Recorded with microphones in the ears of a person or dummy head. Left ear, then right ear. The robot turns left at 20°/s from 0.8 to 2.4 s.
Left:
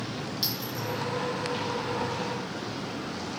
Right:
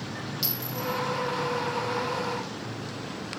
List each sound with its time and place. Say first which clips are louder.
0.4 s a clink: even; centre (ahead or behind), 1.1 m